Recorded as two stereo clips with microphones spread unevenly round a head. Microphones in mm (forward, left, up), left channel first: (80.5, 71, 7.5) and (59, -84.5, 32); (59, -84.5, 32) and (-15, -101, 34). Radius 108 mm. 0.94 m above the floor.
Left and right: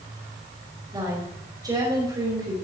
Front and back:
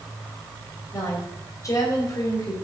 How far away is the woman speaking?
About 4.5 m.